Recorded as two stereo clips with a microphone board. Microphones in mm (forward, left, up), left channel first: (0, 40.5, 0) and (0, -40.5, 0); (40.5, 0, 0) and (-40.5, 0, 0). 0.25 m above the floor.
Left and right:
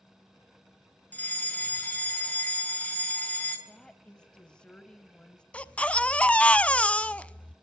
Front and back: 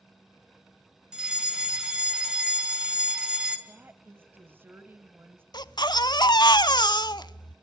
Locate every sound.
1.1 s a fire alarm: 115° left, 2 m
3.7 s a woman speaking: 155° left, 1.1 m
5.5 s a baby crying: 15° left, 0.5 m